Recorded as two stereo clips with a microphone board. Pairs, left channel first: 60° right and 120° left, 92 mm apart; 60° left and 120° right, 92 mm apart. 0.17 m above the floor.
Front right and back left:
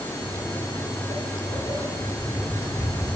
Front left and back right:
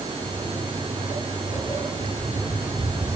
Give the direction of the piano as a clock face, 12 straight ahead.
I don't hear a piano.